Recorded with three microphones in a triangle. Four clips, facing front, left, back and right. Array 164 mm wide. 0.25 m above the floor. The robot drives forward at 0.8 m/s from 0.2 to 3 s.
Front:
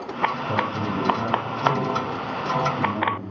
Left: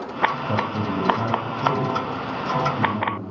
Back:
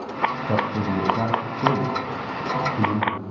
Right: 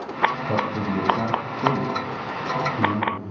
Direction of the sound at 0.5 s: Straight behind.